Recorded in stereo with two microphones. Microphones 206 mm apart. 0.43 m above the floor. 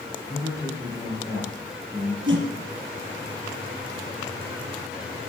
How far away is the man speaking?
About 8.5 m.